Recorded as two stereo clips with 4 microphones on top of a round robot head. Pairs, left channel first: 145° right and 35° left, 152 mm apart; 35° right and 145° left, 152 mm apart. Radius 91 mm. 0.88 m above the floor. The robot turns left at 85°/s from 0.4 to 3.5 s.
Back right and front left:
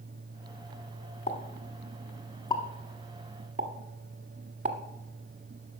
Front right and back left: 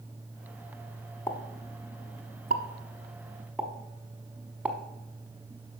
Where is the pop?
105° right, 1.0 m; by 4.8 s 65° left, 1.0 m.